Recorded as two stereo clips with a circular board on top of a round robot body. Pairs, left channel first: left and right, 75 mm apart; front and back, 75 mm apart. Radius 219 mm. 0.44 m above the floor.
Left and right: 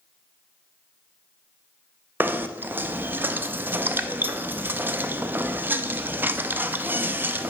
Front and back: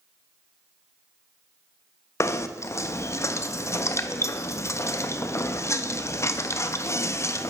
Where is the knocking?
35° right, 0.6 m.